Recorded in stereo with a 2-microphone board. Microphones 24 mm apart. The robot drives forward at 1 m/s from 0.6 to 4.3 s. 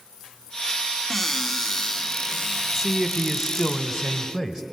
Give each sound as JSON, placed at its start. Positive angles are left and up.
{"t": 1.1, "sound": "a cupboard door", "side_deg": 15, "distance_m": 1.2}
{"t": 2.8, "sound": "a man speaking", "side_deg": -10, "distance_m": 1.6}